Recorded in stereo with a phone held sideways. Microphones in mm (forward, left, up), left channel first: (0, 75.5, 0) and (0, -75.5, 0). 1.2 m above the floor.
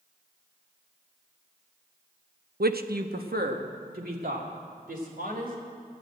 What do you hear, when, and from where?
2.6 s a man speaking: 85° right, 0.6 m; by 5.5 s 80° right, 4.5 m